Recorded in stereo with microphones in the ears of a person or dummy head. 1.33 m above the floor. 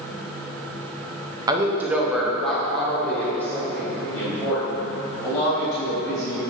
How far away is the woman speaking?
About 1.3 m.